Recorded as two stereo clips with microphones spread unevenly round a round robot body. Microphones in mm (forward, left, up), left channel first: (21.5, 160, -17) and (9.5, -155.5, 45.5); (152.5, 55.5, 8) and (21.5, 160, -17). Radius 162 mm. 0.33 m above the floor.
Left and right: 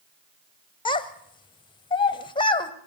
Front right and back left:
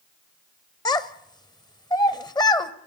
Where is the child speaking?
30° left, 1.1 m.